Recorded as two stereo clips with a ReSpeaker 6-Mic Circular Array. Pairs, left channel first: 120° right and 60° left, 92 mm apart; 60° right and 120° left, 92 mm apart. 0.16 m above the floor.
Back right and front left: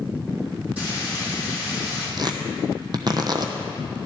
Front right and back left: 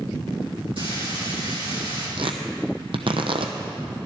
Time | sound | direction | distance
0.8 | frying | 135° left | 5.5 m
2.2 | tearing paper | 100° left | 1.1 m